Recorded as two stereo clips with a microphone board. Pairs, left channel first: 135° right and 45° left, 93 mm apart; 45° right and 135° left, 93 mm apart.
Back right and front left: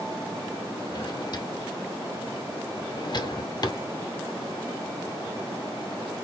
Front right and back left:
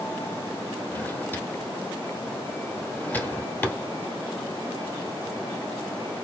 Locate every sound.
0.9 s a drawer: 110° right, 0.8 m